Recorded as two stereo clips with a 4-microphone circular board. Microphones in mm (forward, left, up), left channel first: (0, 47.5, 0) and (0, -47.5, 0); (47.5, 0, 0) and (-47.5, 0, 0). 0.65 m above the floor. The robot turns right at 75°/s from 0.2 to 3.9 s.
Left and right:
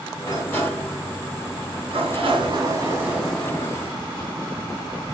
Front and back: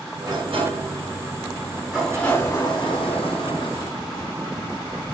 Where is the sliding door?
135° left, 4 m; by 5.0 s 50° left, 4 m.